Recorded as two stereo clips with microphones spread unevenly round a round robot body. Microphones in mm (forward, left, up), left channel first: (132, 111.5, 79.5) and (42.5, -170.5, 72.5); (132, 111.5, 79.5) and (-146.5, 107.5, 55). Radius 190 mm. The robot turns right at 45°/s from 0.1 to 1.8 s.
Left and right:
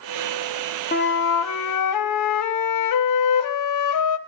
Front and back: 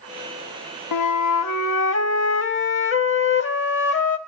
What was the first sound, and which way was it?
A flute, 10° left.